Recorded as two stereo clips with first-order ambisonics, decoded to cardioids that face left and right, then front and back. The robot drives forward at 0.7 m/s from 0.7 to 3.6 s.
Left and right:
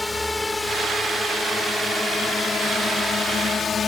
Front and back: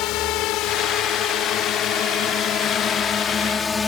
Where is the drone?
5° left; by 3.9 s 55° left.